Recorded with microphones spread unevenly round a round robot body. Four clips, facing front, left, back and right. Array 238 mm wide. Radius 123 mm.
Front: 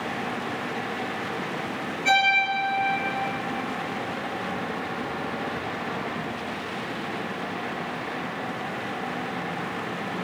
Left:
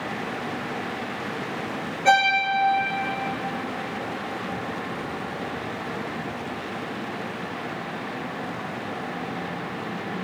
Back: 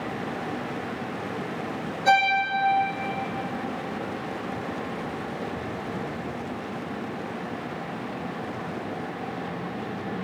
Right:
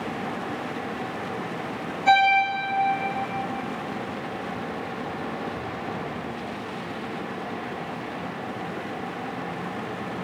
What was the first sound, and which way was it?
A violin, 125° left.